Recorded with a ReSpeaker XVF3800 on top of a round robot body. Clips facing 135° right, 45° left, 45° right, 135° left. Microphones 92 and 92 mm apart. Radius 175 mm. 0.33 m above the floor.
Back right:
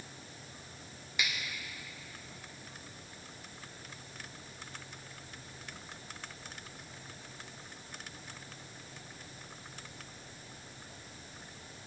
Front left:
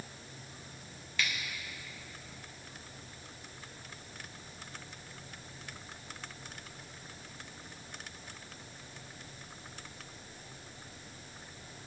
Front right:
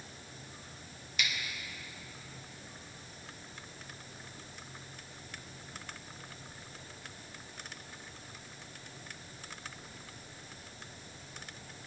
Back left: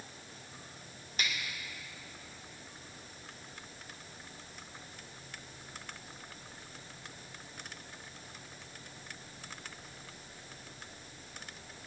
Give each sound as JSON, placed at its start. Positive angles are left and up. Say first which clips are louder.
{"t": 1.2, "sound": "a finger snap", "louder": "front left 1 dB, even", "azimuth_deg": 160, "distance_m": 1.7}